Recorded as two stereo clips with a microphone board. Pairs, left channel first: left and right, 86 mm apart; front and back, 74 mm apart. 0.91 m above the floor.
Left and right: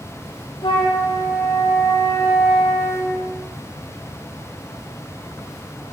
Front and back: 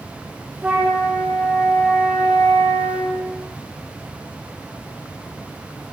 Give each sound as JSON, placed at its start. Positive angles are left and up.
{"t": 0.6, "sound": "a flute", "azimuth_deg": 110, "distance_m": 8.5}